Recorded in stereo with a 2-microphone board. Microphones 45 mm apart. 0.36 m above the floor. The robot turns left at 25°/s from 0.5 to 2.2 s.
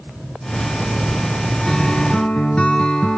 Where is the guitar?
10° left (ahead or behind), 2.5 m; by 3.2 s 25° left (ahead or behind), 2.5 m.